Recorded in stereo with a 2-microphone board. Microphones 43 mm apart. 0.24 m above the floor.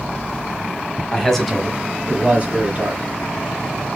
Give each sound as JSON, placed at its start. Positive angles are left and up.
{"t": 1.1, "sound": "a man speaking", "side_deg": 15, "distance_m": 1.3}